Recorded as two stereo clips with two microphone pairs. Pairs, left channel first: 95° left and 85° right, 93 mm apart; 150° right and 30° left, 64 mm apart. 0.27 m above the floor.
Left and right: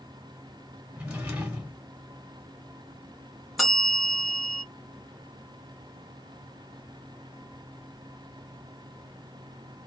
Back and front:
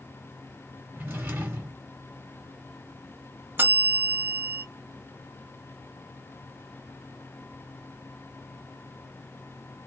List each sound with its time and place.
1.0 s a drawer: 15° right, 1.1 m
3.6 s a bell: 5° left, 1.3 m